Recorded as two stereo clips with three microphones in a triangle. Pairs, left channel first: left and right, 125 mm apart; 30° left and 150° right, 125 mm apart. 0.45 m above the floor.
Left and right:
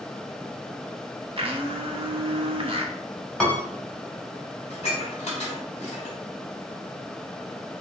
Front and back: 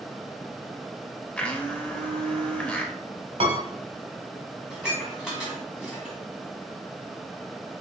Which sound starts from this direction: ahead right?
A blender, at 1.4 s.